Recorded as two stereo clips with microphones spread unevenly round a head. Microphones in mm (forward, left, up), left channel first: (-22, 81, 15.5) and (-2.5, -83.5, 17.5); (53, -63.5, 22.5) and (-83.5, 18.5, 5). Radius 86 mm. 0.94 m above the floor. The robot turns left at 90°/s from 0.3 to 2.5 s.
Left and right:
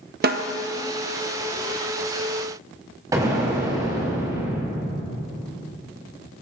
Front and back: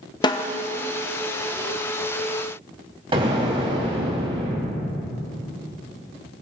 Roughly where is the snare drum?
Right.